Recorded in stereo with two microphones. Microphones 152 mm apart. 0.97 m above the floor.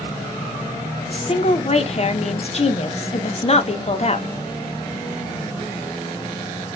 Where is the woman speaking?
45° left (ahead or behind), 0.5 m.